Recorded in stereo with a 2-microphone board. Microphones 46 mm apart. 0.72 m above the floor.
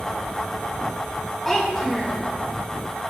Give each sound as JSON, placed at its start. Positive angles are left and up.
{"t": 1.4, "sound": "a child speaking", "side_deg": 10, "distance_m": 4.5}